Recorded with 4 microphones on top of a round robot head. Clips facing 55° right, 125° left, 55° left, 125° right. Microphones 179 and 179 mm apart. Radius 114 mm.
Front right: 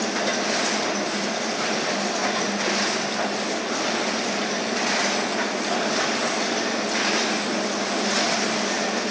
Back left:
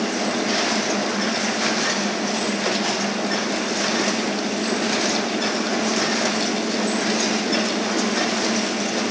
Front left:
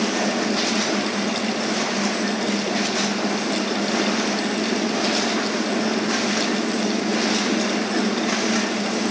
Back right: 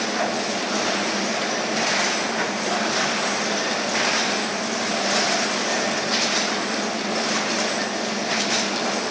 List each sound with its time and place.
Only background noise.